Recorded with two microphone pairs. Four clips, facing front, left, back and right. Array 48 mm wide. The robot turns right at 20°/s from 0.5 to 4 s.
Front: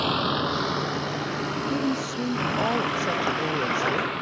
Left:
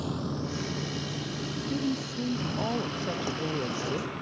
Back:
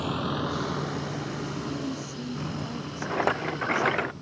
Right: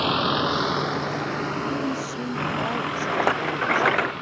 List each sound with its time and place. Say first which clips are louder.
0.0 s a vehicle: right 11 dB, front 5 dB; 65° right; by 4.2 s 25° right
1.7 s a woman speaking: right 4 dB, front 7 dB; 30° right; by 4.0 s 20° left
3.0 s a rattle: right 9 dB, front 2 dB; 110° right; by 4.1 s 90° right